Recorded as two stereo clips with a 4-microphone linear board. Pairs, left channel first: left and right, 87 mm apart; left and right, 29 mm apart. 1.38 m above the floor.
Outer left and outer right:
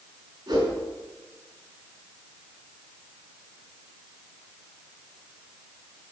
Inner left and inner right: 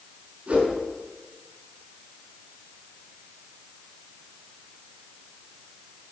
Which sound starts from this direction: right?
A whoosh, at 0.5 s.